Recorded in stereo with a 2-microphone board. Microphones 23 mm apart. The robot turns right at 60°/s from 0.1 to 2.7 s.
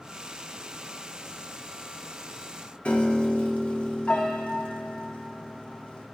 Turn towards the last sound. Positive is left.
turn(degrees=55)  # may be behind; listen again after turning